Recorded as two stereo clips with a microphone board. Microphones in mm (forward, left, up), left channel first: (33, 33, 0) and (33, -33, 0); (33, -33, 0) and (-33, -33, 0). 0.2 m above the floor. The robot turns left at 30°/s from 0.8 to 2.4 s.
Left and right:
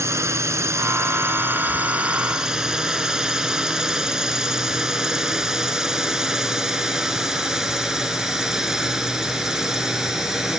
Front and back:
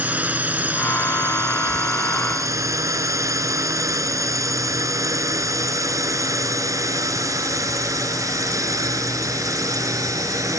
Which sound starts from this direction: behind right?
A drone, at 0.0 s.